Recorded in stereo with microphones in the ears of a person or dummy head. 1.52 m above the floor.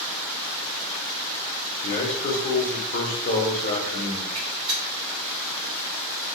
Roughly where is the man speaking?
Left.